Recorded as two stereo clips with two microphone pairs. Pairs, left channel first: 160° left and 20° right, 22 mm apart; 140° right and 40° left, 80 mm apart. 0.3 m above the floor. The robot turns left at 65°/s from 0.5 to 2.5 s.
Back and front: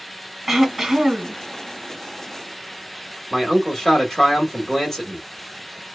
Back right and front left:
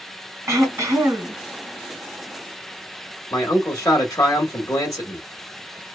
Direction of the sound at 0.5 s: 65° left.